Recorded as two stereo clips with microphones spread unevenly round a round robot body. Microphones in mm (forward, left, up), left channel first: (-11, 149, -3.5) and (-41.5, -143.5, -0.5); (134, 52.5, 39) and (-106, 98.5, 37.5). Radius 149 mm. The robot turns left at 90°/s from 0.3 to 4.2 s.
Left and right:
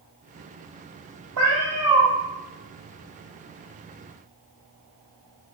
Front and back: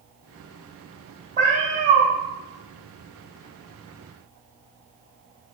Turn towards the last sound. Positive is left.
turn(degrees=-10)